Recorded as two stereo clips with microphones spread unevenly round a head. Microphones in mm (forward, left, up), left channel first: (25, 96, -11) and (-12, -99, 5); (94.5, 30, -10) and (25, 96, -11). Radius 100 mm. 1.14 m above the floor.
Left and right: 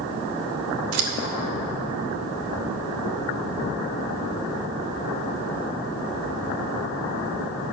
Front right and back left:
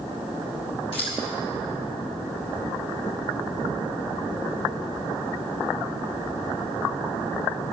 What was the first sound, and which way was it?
Scissors, 100° right.